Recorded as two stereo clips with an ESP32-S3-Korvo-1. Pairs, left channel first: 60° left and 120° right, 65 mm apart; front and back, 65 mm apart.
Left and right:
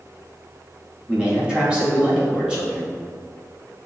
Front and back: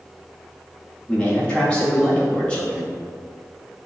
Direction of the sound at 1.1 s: 55° right.